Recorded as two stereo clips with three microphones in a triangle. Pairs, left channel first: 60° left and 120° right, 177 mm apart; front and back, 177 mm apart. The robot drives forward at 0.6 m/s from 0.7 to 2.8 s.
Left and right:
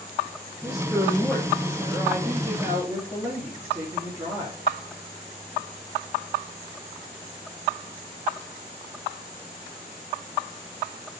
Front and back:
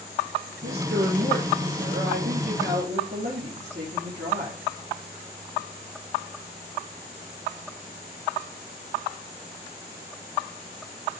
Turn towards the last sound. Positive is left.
turn(degrees=165)